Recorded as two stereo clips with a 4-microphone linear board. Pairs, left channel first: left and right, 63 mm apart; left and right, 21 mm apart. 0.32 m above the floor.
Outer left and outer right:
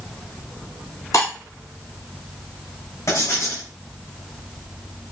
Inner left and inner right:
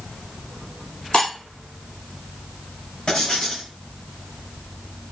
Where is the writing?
50° left (ahead or behind), 2.5 m.